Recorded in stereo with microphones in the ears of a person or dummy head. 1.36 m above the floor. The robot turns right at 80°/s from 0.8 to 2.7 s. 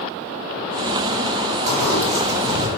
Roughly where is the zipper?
Behind right.